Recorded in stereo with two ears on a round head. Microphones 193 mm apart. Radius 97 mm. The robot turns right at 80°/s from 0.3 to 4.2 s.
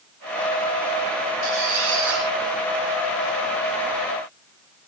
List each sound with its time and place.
1.4 s a squeak: 60° right, 9 m; by 2.3 s 5° left, 9 m